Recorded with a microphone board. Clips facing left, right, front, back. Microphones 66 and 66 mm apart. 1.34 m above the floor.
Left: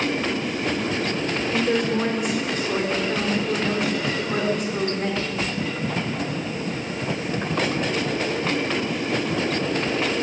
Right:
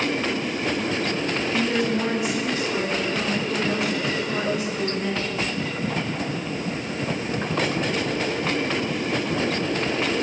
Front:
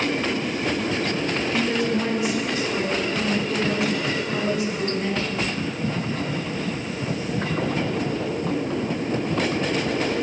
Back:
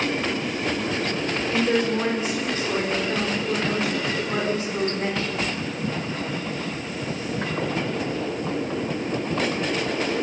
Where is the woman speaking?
125° left, 4.5 m.